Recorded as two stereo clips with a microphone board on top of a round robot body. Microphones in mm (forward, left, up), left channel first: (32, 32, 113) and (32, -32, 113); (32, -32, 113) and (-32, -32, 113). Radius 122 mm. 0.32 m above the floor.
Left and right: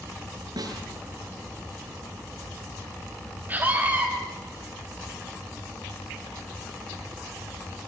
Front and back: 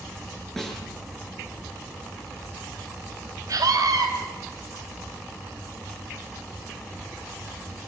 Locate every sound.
0.6 s a snare drum: 85° right, 7 m
3.5 s a scream: 150° right, 3.5 m